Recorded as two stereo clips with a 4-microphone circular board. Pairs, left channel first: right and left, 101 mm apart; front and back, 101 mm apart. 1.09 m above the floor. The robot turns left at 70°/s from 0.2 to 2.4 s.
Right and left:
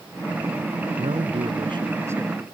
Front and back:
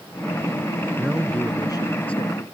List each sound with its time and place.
1.0 s a man speaking: 105° left; by 2.4 s 5° left